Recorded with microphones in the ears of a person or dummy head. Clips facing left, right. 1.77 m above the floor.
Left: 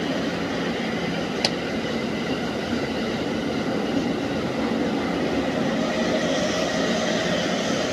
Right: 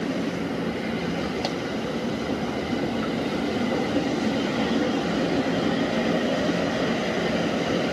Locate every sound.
1.4 s a pop: 45° left (ahead or behind), 0.8 m